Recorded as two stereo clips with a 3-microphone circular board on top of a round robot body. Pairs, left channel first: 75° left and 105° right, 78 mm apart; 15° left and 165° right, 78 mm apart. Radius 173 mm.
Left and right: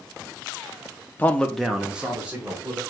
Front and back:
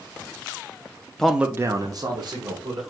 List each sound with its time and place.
1.2 s a man speaking: 85° left, 0.8 m; by 2.8 s 175° right, 2.0 m